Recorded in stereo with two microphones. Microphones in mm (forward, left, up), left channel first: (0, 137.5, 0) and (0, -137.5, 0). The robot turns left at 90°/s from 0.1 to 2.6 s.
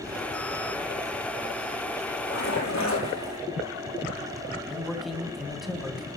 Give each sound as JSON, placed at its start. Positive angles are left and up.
{"t": 2.2, "sound": "a splash", "azimuth_deg": 135, "distance_m": 9.0}
{"t": 4.7, "sound": "a man speaking", "side_deg": 0, "distance_m": 3.0}